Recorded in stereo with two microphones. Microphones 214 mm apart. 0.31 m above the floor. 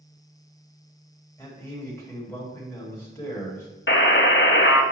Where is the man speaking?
10° left (ahead or behind), 1.9 m.